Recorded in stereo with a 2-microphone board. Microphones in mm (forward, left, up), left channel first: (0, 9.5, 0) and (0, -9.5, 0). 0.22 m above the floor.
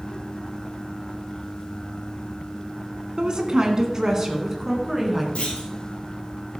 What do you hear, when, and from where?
3.2 s a woman speaking: 40° right (ahead or behind), 2 m; by 5.2 s 5° right (ahead or behind), 2.5 m
5.3 s a clunk: 70° left (ahead or behind), 3.5 m